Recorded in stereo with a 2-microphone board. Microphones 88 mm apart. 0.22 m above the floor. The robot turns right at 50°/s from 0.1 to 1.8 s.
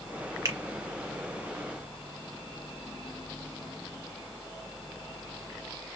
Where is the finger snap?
35° right (ahead or behind), 1.0 m.